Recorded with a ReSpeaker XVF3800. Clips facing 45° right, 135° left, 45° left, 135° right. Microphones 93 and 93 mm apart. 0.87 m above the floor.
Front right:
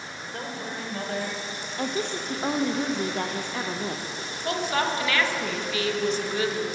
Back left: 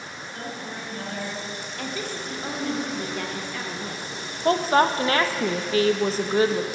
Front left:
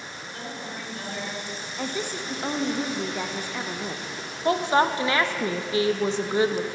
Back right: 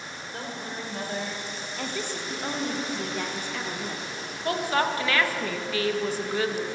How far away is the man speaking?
About 3 m.